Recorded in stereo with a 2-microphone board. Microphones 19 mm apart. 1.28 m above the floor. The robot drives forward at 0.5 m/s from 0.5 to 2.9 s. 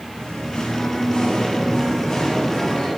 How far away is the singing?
About 1.1 m.